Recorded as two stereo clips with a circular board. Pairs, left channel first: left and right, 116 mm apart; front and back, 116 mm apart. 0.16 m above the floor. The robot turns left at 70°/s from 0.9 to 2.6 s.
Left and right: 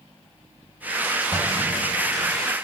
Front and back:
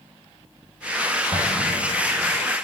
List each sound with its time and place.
1.3 s an explosion: 140° right, 2.5 m; by 2.4 s 140° left, 2.5 m